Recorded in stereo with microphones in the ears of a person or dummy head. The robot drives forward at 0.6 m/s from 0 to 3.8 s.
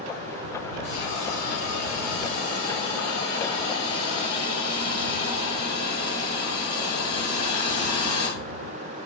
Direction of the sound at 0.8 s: 65° left (ahead or behind).